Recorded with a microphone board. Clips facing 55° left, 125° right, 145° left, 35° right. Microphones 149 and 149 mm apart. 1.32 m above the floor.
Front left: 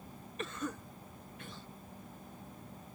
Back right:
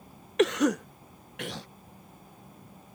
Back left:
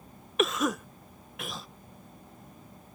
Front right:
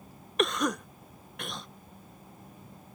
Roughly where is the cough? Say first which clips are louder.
Back right 17 dB, back left 1 dB; behind right.